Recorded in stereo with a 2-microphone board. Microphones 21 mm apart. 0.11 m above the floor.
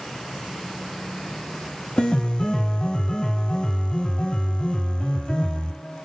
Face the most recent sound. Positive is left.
turn(degrees=50)  # may be behind; listen again after turning